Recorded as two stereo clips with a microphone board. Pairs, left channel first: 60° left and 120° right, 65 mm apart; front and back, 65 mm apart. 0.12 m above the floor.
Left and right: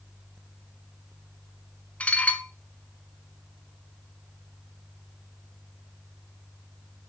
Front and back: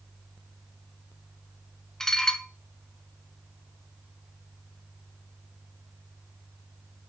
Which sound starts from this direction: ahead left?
Dishes clattering, at 2.0 s.